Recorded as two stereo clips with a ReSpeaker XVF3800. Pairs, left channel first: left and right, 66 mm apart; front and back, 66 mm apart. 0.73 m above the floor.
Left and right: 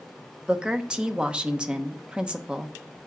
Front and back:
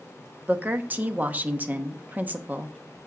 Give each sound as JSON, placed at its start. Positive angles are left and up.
{"t": 0.5, "sound": "a woman speaking", "azimuth_deg": -155, "distance_m": 0.9}